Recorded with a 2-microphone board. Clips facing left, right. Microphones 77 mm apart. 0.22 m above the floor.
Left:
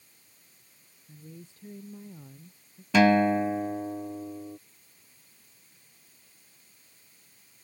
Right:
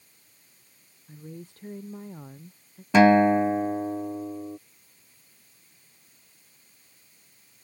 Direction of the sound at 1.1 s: 55° right (ahead or behind).